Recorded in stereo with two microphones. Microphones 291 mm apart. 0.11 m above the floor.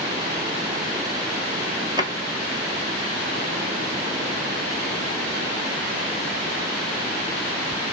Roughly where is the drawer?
Centre.